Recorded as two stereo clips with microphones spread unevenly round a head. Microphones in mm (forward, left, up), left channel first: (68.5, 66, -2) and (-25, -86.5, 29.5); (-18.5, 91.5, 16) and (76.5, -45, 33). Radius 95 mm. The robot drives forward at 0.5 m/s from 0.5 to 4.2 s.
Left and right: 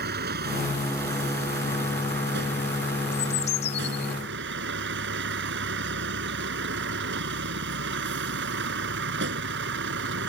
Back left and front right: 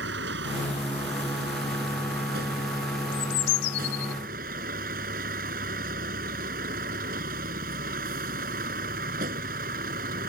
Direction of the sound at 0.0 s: 90° right.